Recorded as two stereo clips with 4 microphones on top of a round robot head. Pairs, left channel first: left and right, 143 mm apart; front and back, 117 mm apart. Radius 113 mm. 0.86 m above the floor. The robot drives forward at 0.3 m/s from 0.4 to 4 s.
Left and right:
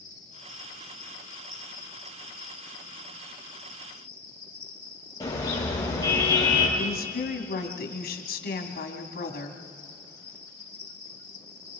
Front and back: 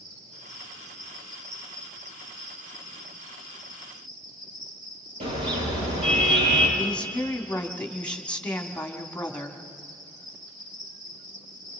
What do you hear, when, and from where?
0.0 s an insect: 155° left, 5 m; by 11.8 s 160° left, 6 m
5.2 s a car horn: 155° left, 8 m
6.8 s a woman speaking: 80° left, 2.5 m